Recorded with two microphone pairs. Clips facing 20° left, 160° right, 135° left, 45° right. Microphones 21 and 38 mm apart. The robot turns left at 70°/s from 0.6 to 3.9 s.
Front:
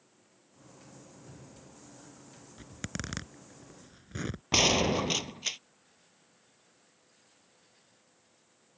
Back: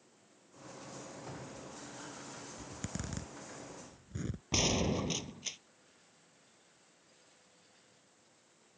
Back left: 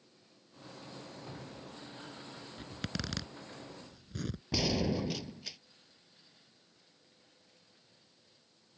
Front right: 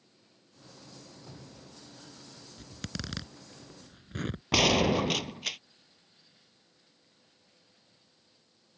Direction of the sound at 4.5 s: 35° right.